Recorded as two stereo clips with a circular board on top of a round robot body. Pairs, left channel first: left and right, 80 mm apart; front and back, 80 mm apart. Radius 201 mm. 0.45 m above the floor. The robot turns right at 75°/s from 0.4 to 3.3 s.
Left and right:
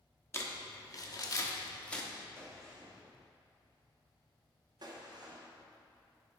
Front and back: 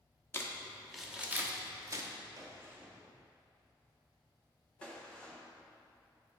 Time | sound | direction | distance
0.3 | crumpling | 45° left | 1.3 m
2.4 | a gunshot | 145° right | 1.6 m